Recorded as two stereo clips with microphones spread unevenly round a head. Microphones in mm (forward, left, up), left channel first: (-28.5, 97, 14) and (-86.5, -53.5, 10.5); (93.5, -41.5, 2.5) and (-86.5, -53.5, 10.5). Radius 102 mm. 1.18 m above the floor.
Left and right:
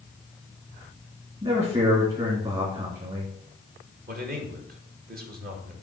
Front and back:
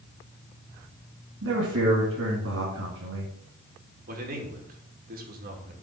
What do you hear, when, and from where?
1.4 s a man speaking: 165° right, 2.5 m
4.1 s a man speaking: 140° right, 2 m